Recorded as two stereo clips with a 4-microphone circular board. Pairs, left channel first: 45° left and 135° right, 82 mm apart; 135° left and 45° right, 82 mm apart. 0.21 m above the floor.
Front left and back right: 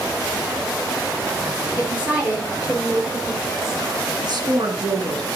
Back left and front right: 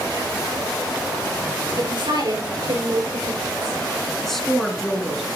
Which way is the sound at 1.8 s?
65° right.